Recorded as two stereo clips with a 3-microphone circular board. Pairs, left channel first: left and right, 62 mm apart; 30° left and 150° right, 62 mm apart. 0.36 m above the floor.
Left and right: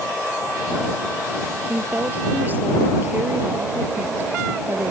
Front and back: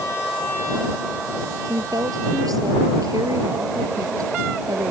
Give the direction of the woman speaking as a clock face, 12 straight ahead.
5 o'clock.